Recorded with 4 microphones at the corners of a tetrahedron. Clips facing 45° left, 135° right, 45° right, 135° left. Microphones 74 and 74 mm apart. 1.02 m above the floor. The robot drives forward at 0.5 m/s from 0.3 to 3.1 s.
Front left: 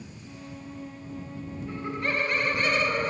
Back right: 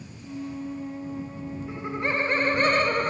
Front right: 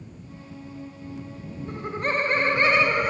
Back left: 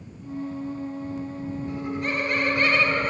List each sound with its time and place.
1.7 s laughter: 60° right, 0.9 m; by 3.1 s 120° right, 0.9 m